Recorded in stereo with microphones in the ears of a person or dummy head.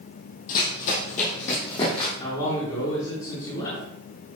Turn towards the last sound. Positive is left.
turn(degrees=25)  # may be behind; listen again after turning